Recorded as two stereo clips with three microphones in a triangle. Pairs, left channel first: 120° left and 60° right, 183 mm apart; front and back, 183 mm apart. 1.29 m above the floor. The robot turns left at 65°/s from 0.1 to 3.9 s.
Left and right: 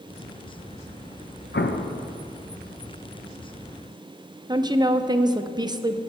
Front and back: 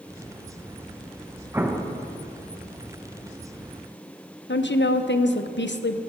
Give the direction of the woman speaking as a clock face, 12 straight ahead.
12 o'clock.